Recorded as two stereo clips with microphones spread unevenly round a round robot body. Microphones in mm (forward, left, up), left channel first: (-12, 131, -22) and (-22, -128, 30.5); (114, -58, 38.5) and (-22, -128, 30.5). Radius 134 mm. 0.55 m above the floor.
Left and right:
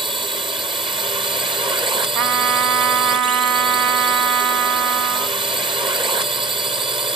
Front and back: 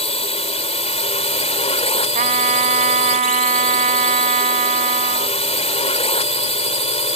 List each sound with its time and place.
0.0 s a drone: 15° right
2.1 s a trumpet: 115° right